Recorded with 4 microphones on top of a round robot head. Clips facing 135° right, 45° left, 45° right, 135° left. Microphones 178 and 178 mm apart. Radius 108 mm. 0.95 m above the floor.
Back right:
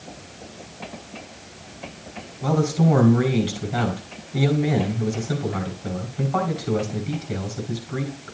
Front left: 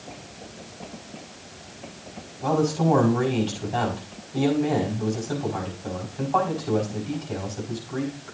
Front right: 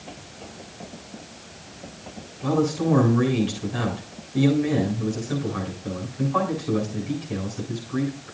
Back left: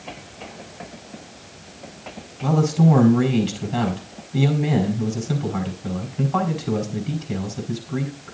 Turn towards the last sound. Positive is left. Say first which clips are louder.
# back right 1 dB, back left 3 dB
turn(degrees=145)